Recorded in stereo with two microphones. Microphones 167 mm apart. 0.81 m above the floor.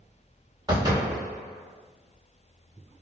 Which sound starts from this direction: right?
A door slam, at 0.7 s.